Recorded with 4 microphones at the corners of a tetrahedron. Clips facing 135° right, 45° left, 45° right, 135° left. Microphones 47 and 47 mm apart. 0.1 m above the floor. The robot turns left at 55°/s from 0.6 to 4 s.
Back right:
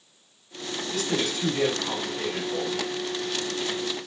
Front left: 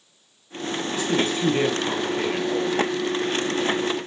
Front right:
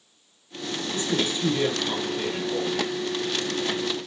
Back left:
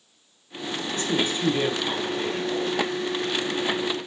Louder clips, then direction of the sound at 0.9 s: Front left 4 dB, back left 1 dB; 115° left.